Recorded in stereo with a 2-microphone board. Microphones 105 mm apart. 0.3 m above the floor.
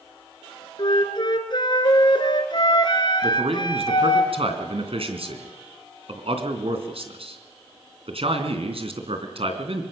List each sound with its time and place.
0.8 s a flute: 50° left (ahead or behind), 2 m
3.2 s a man speaking: 70° right (ahead or behind), 3 m